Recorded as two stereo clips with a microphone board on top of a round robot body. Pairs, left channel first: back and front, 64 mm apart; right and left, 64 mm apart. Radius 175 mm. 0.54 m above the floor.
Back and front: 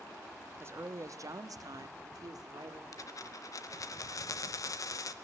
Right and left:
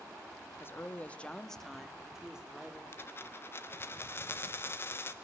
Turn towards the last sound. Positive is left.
turn(degrees=-145)